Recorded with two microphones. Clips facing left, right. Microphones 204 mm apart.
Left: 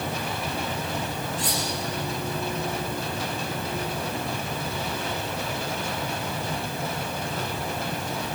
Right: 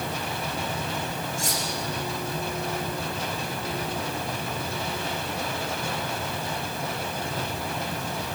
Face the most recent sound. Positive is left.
turn(degrees=-45)  # may be behind; listen again after turning